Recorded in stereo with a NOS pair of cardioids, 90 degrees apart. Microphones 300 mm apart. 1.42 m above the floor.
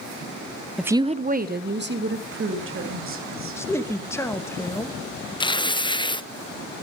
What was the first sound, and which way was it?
A woman speaking, straight ahead.